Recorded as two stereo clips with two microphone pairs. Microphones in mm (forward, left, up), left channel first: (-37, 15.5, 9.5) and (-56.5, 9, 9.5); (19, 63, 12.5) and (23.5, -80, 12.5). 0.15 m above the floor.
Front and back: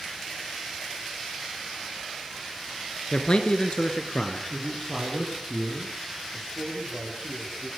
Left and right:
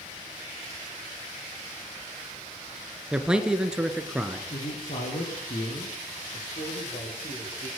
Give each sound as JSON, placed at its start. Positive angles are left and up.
{"t": 3.1, "sound": "a man speaking", "azimuth_deg": -5, "distance_m": 2.0}
{"t": 4.5, "sound": "a man speaking", "azimuth_deg": 95, "distance_m": 5.0}
{"t": 6.3, "sound": "a man speaking", "azimuth_deg": 105, "distance_m": 6.5}